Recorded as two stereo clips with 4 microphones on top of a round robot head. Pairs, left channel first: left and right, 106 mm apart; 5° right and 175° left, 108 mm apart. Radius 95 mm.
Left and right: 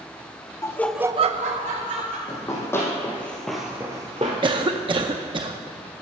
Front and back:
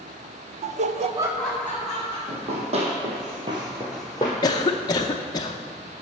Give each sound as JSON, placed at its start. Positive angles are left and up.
{"t": 0.6, "sound": "laughter", "azimuth_deg": 155, "distance_m": 0.9}
{"t": 2.3, "sound": "running footsteps", "azimuth_deg": 155, "distance_m": 2.5}
{"t": 4.4, "sound": "a cough", "azimuth_deg": -55, "distance_m": 0.5}